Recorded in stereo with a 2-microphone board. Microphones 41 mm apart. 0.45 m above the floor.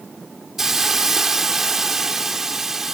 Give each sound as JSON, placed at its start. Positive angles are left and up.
{"t": 0.6, "sound": "a hiss", "side_deg": -10}